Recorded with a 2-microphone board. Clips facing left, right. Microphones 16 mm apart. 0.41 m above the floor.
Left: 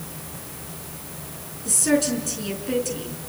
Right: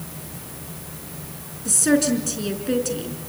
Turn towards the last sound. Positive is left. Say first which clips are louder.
# right 2 dB
turn(degrees=-15)  # may be behind; listen again after turning